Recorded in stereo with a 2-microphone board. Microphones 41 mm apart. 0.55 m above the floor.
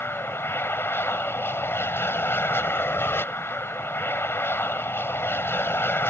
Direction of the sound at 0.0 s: 65° left (ahead or behind).